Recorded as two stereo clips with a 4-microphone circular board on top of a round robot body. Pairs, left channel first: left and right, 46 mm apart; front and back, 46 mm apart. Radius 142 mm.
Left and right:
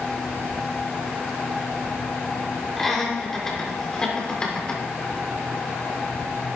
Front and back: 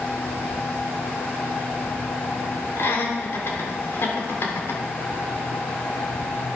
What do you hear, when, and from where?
2.8 s laughter: 5° left, 3.5 m; by 4.8 s 25° left, 4 m